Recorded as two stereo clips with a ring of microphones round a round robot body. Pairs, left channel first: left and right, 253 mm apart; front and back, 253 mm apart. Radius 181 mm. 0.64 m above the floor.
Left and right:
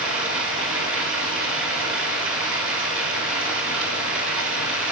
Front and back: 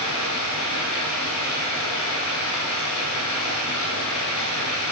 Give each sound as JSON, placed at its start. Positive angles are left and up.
{"t": 0.0, "sound": "running water", "azimuth_deg": -55, "distance_m": 5.0}